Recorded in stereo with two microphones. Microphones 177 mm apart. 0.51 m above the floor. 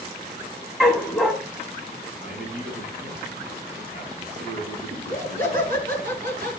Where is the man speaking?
80° right, 4 m.